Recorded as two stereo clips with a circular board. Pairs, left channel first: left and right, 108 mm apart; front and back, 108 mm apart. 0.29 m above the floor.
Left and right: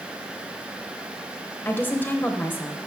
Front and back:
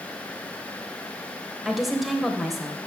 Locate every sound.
1.6 s a woman speaking: 95° left, 0.9 m